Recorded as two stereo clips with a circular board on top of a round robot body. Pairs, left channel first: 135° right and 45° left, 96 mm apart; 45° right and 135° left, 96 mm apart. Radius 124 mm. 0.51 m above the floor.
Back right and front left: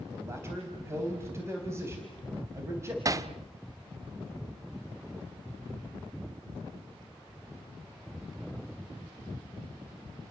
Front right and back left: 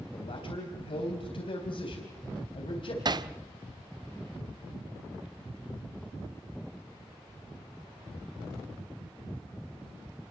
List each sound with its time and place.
0.1 s a man speaking: 20° right, 4 m
3.0 s hammering: 95° left, 1.2 m